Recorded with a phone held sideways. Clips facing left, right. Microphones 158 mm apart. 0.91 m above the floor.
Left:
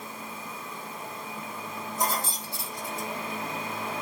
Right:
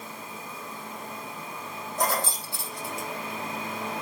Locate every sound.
2.0 s keys jangling: 80° right, 3.5 m